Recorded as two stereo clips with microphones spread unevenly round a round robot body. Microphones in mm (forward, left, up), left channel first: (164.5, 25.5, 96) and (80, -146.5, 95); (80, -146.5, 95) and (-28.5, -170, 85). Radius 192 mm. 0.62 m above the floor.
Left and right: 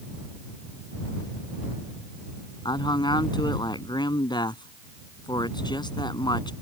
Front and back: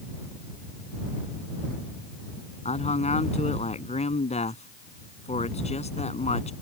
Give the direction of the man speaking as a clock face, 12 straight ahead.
12 o'clock.